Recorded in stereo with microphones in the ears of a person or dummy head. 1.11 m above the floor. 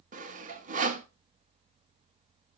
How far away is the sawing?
About 0.9 m.